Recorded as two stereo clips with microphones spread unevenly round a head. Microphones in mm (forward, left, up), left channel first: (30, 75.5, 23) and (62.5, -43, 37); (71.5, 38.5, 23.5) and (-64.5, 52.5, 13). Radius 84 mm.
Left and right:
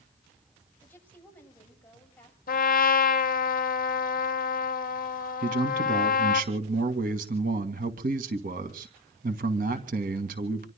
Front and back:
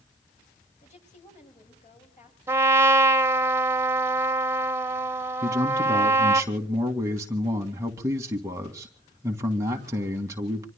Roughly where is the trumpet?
Left.